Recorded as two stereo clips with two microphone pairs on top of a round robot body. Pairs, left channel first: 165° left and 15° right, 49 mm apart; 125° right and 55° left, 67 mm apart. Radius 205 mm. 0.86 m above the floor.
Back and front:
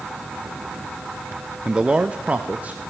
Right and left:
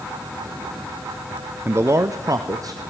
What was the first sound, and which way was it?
A man speaking, 65° left.